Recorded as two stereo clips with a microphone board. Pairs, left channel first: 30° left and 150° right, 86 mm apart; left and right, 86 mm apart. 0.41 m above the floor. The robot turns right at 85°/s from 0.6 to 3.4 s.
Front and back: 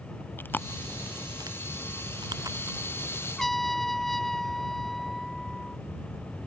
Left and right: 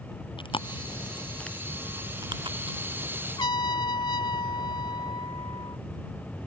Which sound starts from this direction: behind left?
A trumpet, at 3.4 s.